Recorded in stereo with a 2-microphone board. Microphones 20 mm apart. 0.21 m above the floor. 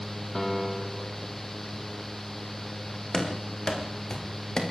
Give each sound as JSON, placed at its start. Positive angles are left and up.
{"t": 0.3, "sound": "a piano", "side_deg": 25, "distance_m": 2.0}
{"t": 3.1, "sound": "running footsteps", "side_deg": 30, "distance_m": 7.0}